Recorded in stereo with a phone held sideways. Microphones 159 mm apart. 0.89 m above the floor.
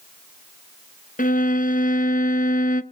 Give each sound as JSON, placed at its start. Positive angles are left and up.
{"t": 1.2, "sound": "a violin", "side_deg": 55, "distance_m": 0.7}